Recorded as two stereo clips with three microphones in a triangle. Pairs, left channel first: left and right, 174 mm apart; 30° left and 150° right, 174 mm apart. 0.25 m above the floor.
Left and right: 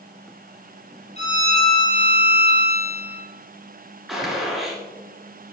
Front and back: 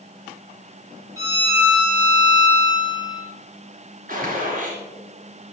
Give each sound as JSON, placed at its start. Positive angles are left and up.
{"t": 1.2, "sound": "a violin", "azimuth_deg": 140, "distance_m": 2.5}
{"t": 4.1, "sound": "a gunshot", "azimuth_deg": 180, "distance_m": 2.5}